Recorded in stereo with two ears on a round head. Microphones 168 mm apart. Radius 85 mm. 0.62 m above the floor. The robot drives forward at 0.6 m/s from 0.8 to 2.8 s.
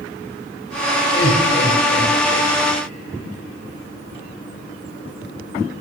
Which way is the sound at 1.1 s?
55° left (ahead or behind).